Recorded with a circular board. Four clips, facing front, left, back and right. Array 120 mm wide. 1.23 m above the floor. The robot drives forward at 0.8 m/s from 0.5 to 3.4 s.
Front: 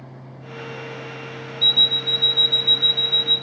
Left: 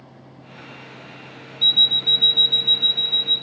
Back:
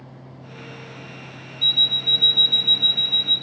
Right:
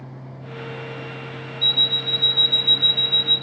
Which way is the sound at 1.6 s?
45° left.